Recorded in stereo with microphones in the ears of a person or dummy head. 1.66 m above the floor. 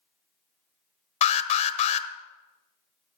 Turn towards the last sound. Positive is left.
turn(degrees=35)  # may be behind; listen again after turning